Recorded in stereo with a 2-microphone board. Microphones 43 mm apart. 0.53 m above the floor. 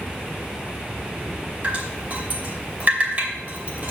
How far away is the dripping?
About 2.5 m.